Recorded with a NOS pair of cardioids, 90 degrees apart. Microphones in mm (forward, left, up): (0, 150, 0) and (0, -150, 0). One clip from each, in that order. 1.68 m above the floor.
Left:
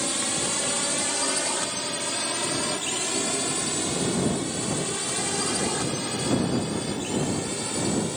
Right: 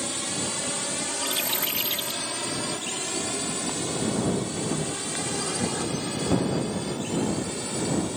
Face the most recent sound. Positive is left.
turn(degrees=20)